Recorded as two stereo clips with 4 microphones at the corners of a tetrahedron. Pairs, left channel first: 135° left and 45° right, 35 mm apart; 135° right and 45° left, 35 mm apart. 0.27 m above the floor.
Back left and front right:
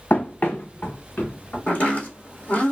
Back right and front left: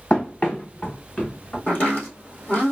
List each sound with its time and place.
0.1 s running footsteps: 170° left, 0.5 m; by 1.6 s 175° left, 3 m
1.7 s chopping: straight behind, 2.5 m